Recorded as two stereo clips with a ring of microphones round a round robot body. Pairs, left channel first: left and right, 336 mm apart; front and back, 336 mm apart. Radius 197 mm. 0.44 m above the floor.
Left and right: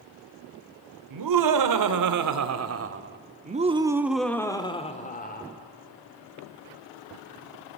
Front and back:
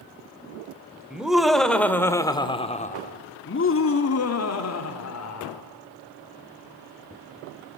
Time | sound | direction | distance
1.1 | laughter | 95° right | 2.5 m